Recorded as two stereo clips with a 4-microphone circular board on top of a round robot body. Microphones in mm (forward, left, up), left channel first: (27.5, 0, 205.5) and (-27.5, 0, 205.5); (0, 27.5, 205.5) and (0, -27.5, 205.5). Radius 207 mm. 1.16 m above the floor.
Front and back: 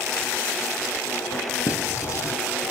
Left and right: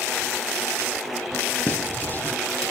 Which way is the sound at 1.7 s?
30° left.